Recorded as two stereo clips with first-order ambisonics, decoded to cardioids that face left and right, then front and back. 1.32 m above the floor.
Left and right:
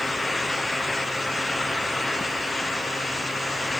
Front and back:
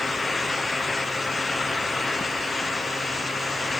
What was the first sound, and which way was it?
Only background noise.